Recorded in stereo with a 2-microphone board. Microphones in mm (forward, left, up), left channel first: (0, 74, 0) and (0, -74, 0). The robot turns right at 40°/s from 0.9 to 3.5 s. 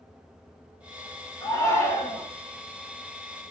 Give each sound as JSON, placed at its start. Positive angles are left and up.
{"t": 1.4, "sound": "a shout", "side_deg": 25, "distance_m": 1.4}